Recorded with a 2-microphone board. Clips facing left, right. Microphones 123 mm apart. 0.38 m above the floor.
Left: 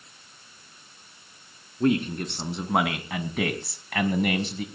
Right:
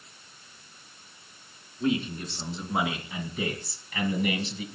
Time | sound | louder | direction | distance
1.8 | a man speaking | left 4 dB | 60° left (ahead or behind) | 4 m